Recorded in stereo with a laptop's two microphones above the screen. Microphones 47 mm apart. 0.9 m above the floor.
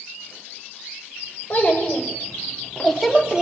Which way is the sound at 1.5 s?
40° left (ahead or behind).